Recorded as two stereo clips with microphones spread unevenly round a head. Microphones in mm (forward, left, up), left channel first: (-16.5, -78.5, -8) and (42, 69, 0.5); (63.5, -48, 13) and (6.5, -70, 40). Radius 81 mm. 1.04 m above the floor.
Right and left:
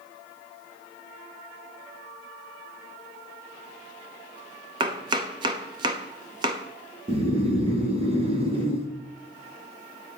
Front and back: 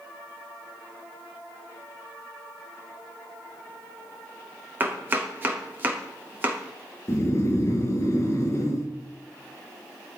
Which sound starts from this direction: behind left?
Chopping, at 4.8 s.